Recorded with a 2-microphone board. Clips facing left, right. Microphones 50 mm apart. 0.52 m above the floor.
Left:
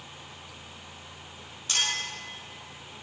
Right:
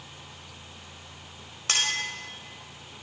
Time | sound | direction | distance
1.7 | a clink | 70° right (ahead or behind) | 1.9 m